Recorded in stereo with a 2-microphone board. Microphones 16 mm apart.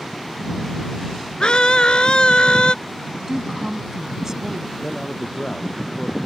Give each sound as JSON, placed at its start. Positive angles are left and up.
{"t": 1.4, "sound": "a scream", "side_deg": 60}
{"t": 3.3, "sound": "a woman speaking", "side_deg": -30}
{"t": 4.8, "sound": "a man speaking", "side_deg": 40}